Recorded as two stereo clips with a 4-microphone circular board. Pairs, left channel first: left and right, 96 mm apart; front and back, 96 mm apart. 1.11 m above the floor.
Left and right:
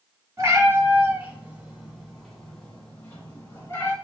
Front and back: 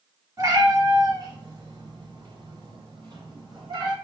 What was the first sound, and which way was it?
A cat meowing, 135° right.